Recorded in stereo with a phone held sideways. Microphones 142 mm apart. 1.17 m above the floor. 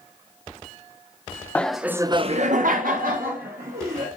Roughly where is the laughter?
Centre.